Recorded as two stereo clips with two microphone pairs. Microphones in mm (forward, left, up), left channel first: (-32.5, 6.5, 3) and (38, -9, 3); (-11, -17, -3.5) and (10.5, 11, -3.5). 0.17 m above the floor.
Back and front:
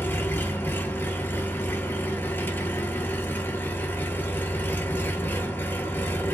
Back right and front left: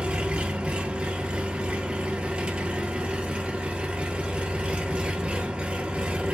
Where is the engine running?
110° left, 1.2 m.